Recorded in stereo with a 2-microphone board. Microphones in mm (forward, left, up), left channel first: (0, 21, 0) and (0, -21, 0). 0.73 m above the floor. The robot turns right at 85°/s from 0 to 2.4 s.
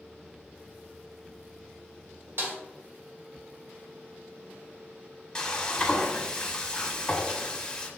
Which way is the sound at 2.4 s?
70° right (ahead or behind).